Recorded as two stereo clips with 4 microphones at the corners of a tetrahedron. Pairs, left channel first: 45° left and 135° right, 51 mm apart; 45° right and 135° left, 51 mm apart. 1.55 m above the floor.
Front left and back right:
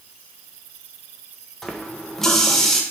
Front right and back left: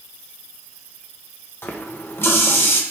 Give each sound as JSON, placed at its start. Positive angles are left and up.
{"t": 1.6, "sound": "a running tap", "azimuth_deg": -30, "distance_m": 0.9}